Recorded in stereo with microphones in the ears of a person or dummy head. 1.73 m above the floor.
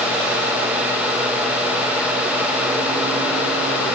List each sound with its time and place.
Only background noise.